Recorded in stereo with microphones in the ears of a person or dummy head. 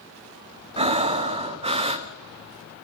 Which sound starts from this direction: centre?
Breathing, at 0.8 s.